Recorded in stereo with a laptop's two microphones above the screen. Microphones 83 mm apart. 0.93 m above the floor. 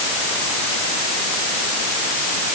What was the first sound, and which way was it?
Only background noise.